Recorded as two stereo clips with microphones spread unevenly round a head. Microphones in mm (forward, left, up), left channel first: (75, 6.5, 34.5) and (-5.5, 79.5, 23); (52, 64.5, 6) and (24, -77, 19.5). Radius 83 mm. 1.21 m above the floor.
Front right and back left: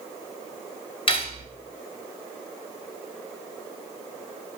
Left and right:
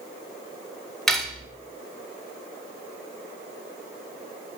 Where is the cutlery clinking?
10° right, 2.5 m.